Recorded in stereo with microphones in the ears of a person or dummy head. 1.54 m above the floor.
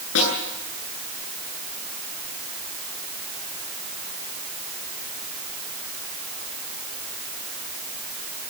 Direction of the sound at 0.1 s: 75° left (ahead or behind).